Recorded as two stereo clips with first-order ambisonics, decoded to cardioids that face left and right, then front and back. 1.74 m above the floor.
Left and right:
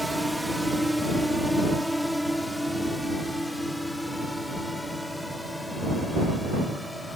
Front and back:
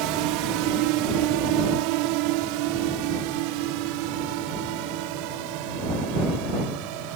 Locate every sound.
0.0 s a drone: straight behind; by 7.2 s 175° left